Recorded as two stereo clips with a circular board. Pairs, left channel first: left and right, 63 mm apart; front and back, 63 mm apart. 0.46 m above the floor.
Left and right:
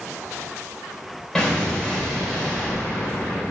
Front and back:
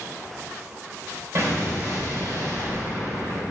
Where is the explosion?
170° left, 1.9 m.